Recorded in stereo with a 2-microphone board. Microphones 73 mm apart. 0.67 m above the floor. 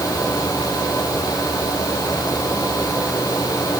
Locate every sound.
Only background noise.